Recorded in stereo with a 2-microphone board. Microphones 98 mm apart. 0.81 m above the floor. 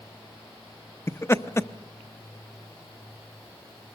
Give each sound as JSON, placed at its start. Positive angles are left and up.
{"t": 1.1, "sound": "laughter", "side_deg": 25, "distance_m": 0.7}